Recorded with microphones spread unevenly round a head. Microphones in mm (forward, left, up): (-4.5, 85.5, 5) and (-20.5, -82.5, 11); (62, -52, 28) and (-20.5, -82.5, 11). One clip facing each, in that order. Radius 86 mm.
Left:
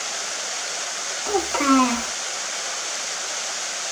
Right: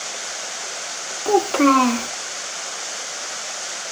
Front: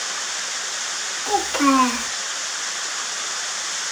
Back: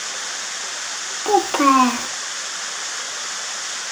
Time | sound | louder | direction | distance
1.2 | a child speaking | right 5 dB, back 3 dB | 125° right | 1.0 m